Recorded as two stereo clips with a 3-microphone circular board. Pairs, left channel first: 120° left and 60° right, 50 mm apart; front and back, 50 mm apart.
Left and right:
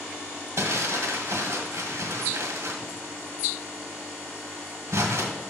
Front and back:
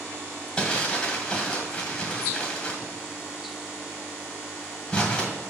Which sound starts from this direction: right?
Crumpling, at 0.6 s.